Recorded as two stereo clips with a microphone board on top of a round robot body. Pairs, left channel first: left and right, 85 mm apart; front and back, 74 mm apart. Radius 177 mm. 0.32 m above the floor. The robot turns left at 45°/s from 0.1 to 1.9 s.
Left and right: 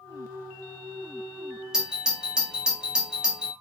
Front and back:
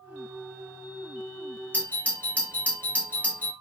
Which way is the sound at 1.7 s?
20° right.